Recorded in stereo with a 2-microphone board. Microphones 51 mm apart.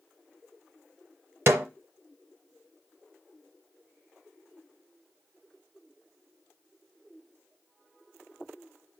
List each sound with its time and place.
1.5 s a snare drum: 50° right (ahead or behind), 0.8 m